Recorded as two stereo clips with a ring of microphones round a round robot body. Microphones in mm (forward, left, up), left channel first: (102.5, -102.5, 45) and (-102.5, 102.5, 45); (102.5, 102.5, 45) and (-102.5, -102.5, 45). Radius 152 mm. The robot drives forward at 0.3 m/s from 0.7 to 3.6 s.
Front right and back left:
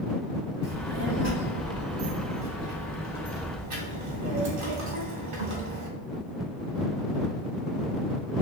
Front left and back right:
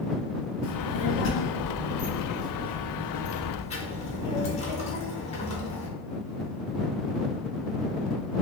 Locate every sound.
0.6 s a child speaking: 85° left, 1.8 m; by 5.9 s 110° left, 1.9 m